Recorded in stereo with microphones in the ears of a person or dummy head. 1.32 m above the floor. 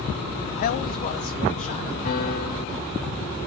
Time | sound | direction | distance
0.6 | a man speaking | 50° left (ahead or behind) | 0.6 m
2.0 | a piano | 50° left (ahead or behind) | 2 m